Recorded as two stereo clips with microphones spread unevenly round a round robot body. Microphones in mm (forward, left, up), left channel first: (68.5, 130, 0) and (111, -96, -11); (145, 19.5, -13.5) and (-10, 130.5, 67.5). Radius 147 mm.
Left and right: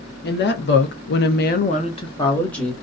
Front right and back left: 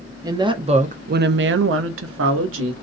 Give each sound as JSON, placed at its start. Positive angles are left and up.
{"t": 0.2, "sound": "a woman speaking", "azimuth_deg": 60, "distance_m": 0.9}